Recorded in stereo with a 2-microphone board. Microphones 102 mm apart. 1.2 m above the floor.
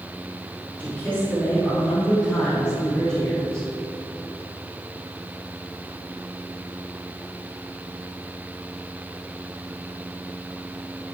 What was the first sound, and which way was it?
A man speaking, 15° left (ahead or behind).